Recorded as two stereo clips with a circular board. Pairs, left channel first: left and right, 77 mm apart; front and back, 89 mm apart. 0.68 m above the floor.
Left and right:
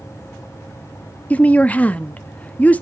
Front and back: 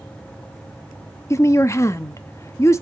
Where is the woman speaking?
30° left, 0.7 m.